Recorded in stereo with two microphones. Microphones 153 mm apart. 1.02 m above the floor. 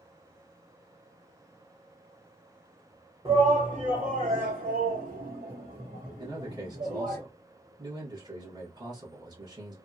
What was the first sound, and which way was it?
A shout, 35° right (ahead or behind).